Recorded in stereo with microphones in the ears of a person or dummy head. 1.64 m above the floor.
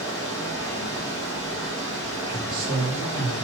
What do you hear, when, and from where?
0.0 s running water: 5° left (ahead or behind), 1.8 m
2.3 s a man speaking: 50° right (ahead or behind), 2 m